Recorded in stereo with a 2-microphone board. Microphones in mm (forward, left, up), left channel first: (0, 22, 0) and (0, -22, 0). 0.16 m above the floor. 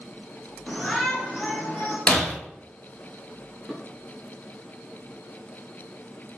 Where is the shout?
5° left (ahead or behind), 1.4 m; by 2.0 s 30° left (ahead or behind), 1.5 m.